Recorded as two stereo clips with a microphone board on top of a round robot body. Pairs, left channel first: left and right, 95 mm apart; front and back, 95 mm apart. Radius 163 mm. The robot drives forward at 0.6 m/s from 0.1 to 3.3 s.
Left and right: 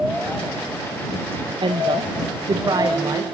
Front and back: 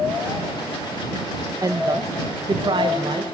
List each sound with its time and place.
1.6 s a woman speaking: 125° right, 1.6 m; by 3.2 s 145° right, 2.5 m